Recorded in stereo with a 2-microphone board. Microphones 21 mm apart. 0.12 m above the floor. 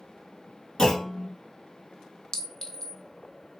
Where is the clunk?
30° left (ahead or behind), 1.1 m.